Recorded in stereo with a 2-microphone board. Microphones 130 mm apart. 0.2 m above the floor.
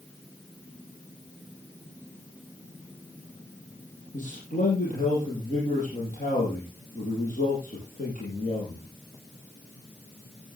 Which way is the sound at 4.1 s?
75° left (ahead or behind).